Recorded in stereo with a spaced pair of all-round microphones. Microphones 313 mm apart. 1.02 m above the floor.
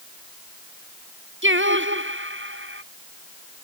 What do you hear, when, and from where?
1.4 s singing: 35° right (ahead or behind)